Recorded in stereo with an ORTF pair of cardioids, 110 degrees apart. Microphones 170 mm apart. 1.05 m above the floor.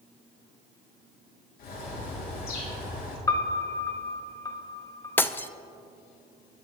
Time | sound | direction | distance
1.6 | a bird | 70° left | 4 m
3.3 | a piano | 20° left | 1.4 m
5.2 | breaking glass | 10° left | 0.6 m